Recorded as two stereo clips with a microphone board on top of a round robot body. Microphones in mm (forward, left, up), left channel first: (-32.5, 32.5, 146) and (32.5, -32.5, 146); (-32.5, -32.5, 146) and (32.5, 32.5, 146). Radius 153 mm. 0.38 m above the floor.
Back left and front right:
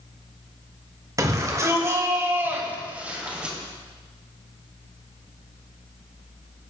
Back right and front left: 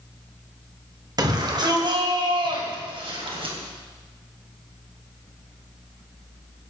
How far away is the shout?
About 2.5 m.